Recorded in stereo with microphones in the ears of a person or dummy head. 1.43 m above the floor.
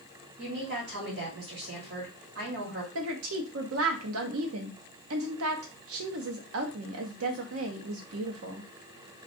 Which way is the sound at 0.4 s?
50° right (ahead or behind).